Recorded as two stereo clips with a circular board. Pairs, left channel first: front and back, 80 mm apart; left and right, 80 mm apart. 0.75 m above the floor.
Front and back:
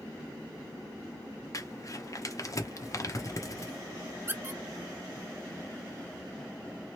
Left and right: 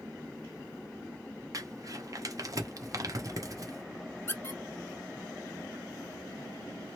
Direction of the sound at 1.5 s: 45° right.